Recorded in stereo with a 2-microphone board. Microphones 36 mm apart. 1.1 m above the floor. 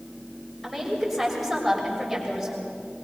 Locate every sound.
0.6 s a woman speaking: 5° left (ahead or behind), 6.5 m; by 2.7 s 5° right (ahead or behind), 6.5 m